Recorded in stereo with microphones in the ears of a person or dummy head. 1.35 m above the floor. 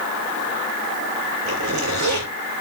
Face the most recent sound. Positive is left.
turn(degrees=-85)